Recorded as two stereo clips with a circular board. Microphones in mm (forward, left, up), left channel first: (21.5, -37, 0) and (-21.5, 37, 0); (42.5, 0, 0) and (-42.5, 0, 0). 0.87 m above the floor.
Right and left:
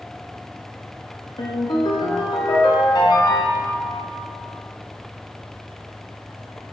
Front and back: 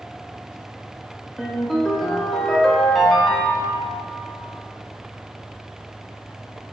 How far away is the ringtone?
About 0.6 m.